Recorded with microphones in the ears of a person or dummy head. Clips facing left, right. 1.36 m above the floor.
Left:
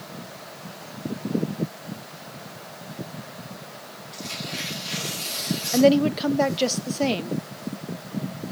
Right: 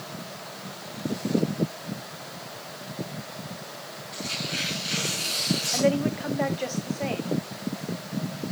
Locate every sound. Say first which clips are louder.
4.1 s tearing paper: right 1 dB; 15° right (ahead or behind), 5 m
5.7 s a woman speaking: left 7 dB; 50° left (ahead or behind), 0.6 m